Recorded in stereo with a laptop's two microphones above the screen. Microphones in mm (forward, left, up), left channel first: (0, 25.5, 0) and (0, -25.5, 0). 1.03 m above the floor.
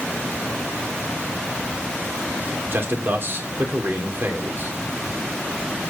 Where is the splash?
No splash in this recording.